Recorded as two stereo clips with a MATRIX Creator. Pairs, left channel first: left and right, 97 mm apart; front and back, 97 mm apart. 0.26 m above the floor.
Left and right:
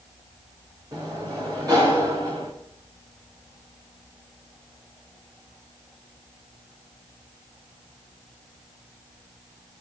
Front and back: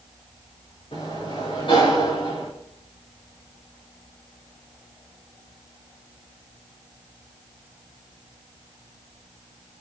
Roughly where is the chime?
No chime in this recording.